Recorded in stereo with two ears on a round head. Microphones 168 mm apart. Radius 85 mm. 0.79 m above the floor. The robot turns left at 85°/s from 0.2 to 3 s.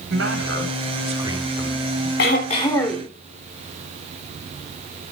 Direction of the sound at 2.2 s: 65° left.